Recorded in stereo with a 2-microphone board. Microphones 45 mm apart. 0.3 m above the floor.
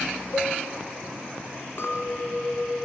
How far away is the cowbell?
About 0.9 m.